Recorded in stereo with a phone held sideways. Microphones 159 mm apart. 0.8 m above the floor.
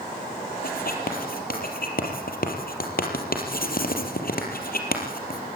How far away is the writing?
About 3.5 m.